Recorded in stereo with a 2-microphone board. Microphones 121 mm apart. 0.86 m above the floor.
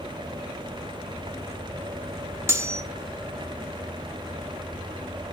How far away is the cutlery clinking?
About 0.9 m.